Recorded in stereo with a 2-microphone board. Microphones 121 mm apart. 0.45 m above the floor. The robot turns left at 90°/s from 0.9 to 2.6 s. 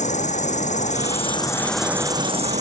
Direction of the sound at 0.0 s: 80° left.